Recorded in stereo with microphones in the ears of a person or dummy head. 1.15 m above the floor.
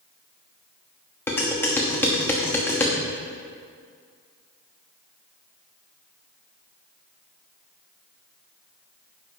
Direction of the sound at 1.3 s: 15° left (ahead or behind).